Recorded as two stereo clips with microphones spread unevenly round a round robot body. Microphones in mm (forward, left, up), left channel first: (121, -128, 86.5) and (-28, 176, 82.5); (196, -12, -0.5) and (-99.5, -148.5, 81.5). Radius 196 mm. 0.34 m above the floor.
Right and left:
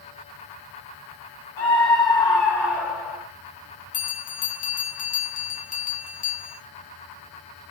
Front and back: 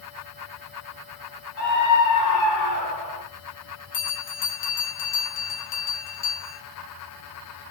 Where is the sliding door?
I don't hear a sliding door.